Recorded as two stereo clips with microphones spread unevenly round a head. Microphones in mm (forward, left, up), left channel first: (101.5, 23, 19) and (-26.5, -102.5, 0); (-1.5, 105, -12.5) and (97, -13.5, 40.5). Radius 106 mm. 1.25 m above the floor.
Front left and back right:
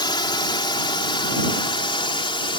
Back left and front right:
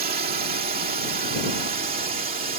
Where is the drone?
20° right; by 2.6 s 15° right.